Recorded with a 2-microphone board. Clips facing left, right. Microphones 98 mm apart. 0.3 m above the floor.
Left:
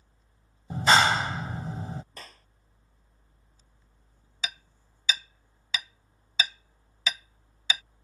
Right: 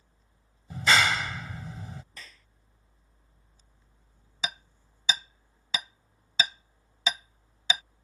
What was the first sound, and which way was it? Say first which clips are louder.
A clap: left 3 dB; 35° left (ahead or behind).